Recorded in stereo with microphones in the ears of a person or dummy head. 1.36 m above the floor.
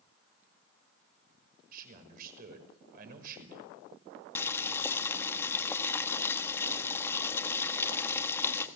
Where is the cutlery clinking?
No cutlery clinking in this recording.